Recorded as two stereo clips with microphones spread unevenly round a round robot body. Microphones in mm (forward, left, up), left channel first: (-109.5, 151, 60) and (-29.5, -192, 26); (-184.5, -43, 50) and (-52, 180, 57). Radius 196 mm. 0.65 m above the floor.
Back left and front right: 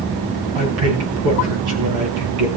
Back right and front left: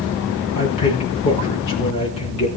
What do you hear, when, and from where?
0.6 s a man speaking: 80° right, 6.5 m